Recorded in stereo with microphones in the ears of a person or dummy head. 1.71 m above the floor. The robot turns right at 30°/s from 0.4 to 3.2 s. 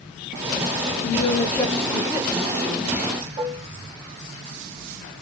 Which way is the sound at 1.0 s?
125° left.